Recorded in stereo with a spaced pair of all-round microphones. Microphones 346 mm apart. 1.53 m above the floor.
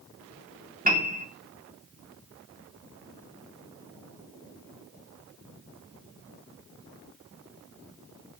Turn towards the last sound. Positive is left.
turn(degrees=-25)  # may be behind; listen again after turning